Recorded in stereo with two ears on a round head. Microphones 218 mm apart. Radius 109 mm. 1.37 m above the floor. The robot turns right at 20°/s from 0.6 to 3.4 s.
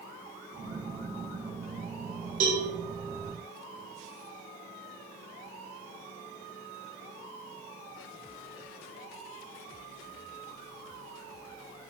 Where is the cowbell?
35° right (ahead or behind), 0.9 m; by 2.6 s 40° right (ahead or behind), 0.9 m.